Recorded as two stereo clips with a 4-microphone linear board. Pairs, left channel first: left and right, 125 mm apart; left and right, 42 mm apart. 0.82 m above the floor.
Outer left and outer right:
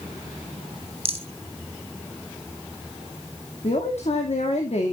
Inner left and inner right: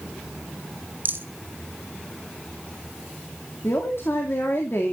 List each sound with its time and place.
1.1 s a rattle: 50° right (ahead or behind), 2 m
3.6 s a man speaking: 65° left (ahead or behind), 2 m